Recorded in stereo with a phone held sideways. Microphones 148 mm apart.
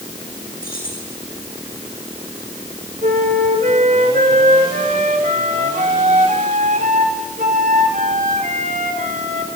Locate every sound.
0.6 s keys jangling: 80° left, 8.5 m
3.0 s a flute: 60° right (ahead or behind), 3.5 m